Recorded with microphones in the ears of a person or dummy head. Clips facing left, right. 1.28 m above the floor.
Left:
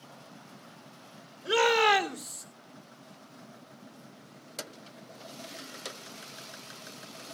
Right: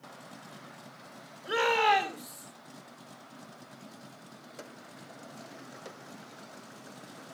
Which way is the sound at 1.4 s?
50° left (ahead or behind).